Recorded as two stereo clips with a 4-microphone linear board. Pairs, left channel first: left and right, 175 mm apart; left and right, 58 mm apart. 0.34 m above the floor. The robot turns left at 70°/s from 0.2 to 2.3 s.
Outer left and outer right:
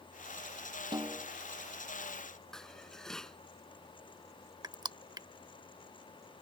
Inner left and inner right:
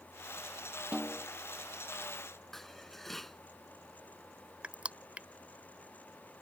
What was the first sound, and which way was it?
A snare drum, 25° right (ahead or behind).